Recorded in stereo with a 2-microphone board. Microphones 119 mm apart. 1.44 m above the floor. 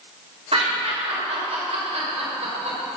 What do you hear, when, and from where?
0.5 s laughter: 65° right (ahead or behind), 6.5 m; by 2.8 s 80° right, 7 m